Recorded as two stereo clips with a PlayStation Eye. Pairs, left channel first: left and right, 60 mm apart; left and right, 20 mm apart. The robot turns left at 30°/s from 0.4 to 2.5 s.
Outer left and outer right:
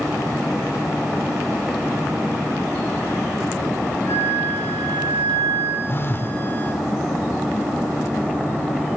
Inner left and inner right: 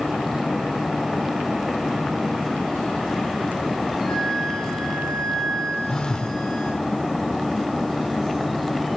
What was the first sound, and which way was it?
A flute, 40° left (ahead or behind).